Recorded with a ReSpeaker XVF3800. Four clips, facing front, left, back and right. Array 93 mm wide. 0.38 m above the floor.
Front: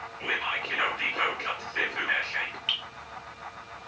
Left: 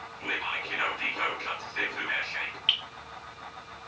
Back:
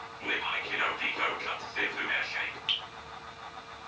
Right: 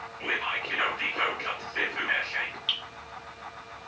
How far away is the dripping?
About 0.7 m.